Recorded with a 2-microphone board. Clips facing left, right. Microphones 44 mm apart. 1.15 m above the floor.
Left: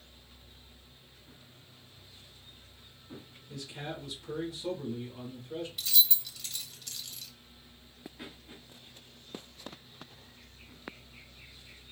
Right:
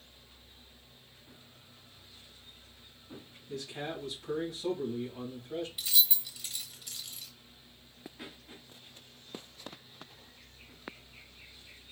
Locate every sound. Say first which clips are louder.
3.5 s a man speaking: right 2 dB; 40° right (ahead or behind), 2.5 m
5.8 s keys jangling: left 3 dB; 15° right (ahead or behind), 0.9 m